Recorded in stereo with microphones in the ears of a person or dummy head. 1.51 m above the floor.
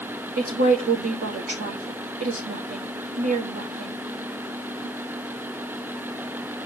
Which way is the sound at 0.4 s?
40° right (ahead or behind).